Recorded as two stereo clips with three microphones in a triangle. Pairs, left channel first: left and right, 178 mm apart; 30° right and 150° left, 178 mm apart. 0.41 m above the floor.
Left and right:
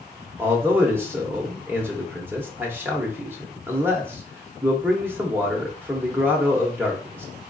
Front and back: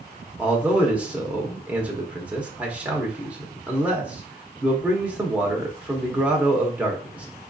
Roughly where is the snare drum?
I don't hear a snare drum.